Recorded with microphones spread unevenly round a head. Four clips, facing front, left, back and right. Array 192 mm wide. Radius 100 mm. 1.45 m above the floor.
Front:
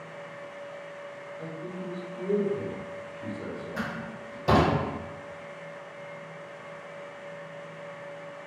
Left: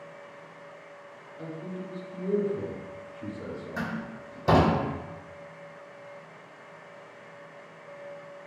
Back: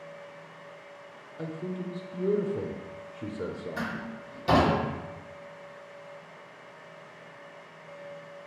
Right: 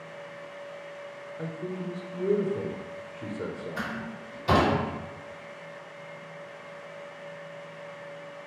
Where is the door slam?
60° left, 1.4 m.